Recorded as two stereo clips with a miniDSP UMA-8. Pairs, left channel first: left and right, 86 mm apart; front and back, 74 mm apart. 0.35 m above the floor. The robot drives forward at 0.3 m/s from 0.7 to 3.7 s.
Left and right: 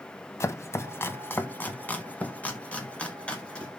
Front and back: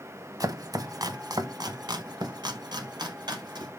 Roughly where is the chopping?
Behind left.